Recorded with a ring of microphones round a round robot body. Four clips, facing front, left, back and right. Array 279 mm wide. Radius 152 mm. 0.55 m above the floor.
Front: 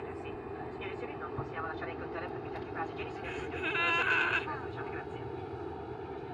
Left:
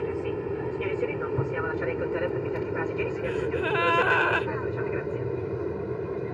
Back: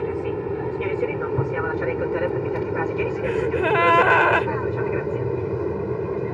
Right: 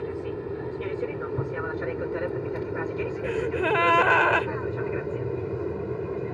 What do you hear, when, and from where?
0.0 s an aircraft: 170° left; by 6.3 s 175° right
3.2 s a gasp: 160° right